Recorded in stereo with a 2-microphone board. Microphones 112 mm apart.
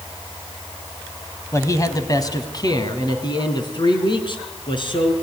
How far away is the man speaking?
About 1.9 m.